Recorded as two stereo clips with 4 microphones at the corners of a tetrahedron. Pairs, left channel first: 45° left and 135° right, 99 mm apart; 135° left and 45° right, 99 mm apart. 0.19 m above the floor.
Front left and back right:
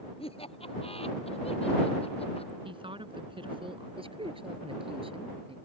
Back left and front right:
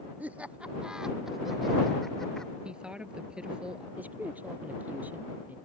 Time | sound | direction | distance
0.2 | laughter | 30° left | ?
2.6 | a woman speaking | 125° right | ?
4.0 | a man speaking | 120° right | ?